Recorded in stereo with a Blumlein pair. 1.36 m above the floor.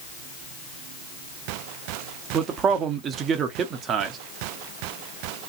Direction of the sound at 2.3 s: 25° right.